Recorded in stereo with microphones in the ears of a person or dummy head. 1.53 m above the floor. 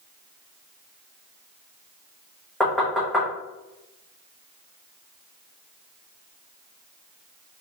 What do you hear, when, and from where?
2.6 s knocking: centre (ahead or behind), 1.0 m